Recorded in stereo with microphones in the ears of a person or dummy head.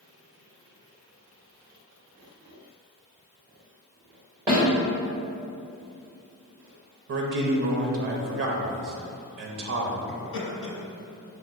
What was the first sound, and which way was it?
A snare drum, 10° right (ahead or behind).